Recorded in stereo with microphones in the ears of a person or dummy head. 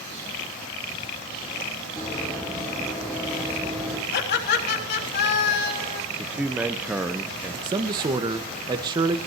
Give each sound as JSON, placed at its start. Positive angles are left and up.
{"t": 2.0, "sound": "running footsteps", "side_deg": 10, "distance_m": 5.5}
{"t": 4.1, "sound": "laughter", "side_deg": 60, "distance_m": 3.0}
{"t": 6.2, "sound": "a man speaking", "side_deg": -15, "distance_m": 1.2}
{"t": 7.6, "sound": "a man speaking", "side_deg": -30, "distance_m": 1.5}